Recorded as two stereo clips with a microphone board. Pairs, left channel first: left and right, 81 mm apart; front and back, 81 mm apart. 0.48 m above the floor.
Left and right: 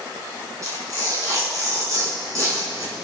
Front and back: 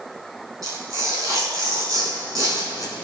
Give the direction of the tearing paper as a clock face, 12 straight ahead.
5 o'clock.